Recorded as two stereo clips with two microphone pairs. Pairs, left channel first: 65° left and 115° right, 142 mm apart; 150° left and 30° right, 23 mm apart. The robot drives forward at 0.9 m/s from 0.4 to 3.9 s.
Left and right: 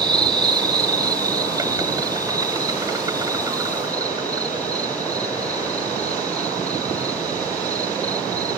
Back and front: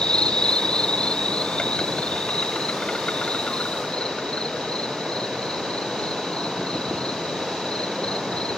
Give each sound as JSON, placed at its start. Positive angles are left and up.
{"t": 0.0, "sound": "an insect", "azimuth_deg": -175}